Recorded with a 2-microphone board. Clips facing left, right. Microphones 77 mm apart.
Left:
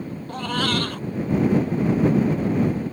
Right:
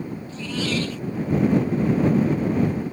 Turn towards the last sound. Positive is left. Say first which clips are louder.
# left 3 dB
turn(degrees=60)  # may be behind; listen again after turning